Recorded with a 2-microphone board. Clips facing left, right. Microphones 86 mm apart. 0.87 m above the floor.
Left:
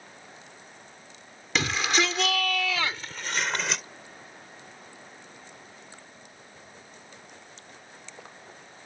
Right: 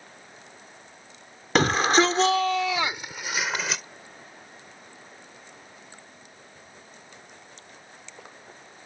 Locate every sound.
1.6 s a shout: 50° right (ahead or behind); by 3.8 s centre (ahead or behind)